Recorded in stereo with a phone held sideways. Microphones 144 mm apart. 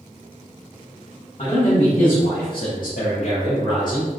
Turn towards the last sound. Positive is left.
turn(degrees=25)  # may be behind; listen again after turning